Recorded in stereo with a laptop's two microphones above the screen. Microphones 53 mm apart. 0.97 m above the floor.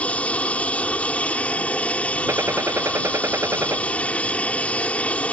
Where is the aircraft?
25° left (ahead or behind).